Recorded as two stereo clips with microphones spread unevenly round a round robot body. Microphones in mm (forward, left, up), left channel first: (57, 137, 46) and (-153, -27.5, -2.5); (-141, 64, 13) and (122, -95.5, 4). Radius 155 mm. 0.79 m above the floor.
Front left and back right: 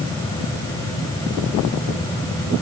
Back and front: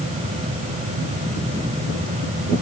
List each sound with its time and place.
Only background noise.